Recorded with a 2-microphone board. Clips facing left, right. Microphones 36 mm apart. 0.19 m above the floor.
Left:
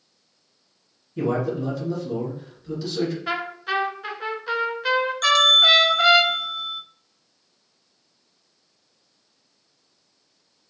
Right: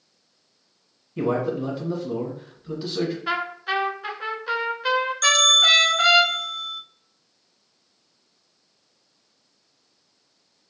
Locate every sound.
1.2 s a man speaking: 25° right (ahead or behind), 1.4 m
3.3 s a trumpet: 5° right (ahead or behind), 0.7 m
5.2 s a bell: 15° left (ahead or behind), 0.6 m